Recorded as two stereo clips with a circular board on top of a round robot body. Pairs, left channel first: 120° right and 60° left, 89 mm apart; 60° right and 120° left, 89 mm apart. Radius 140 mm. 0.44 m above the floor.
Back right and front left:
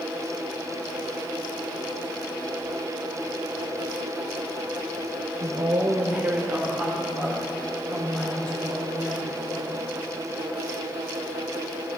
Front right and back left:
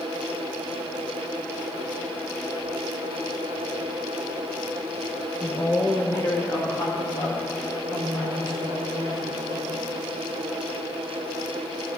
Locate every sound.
5.4 s a woman speaking: 15° left, 1.4 m; by 9.8 s 45° right, 3.5 m